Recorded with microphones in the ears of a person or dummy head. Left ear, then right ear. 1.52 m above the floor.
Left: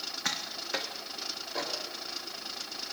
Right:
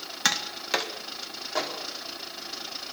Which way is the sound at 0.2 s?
70° right (ahead or behind).